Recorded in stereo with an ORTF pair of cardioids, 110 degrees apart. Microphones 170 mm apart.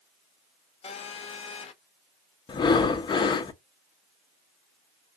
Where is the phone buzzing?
40° left, 0.7 m.